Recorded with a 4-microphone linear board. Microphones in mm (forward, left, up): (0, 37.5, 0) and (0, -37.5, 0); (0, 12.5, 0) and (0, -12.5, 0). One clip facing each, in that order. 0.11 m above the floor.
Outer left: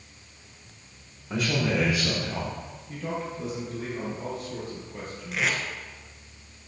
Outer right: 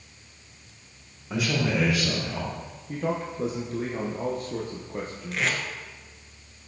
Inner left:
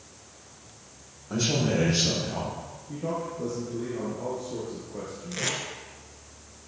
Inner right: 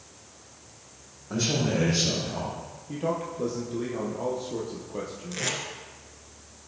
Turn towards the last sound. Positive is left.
turn(degrees=5)  # may be behind; listen again after turning